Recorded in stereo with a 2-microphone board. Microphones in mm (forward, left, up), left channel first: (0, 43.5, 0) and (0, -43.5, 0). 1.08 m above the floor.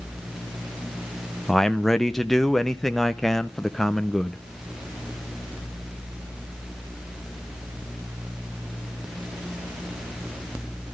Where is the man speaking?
5° left (ahead or behind), 0.5 m.